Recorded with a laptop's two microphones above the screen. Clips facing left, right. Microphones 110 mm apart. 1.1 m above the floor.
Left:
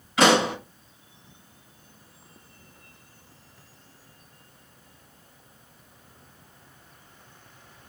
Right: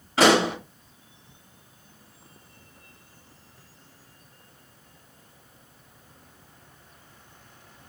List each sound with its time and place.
0.2 s a pop: 35° right (ahead or behind), 4 m